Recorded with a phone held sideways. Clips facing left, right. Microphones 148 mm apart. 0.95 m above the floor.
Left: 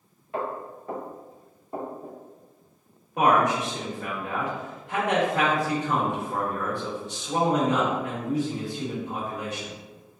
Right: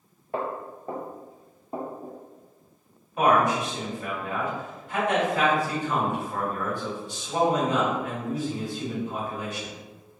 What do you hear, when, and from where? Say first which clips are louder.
0.3 s footsteps: right 1 dB; 35° right (ahead or behind), 1.1 m; by 2.2 s 10° right (ahead or behind), 1.5 m
3.2 s a man speaking: even; 80° left, 1.6 m